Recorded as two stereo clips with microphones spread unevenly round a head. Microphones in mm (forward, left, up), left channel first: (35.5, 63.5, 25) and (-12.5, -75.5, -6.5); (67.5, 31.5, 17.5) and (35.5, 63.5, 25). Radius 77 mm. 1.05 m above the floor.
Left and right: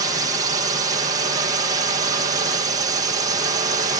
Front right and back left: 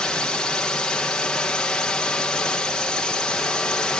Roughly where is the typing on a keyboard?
I don't hear typing on a keyboard.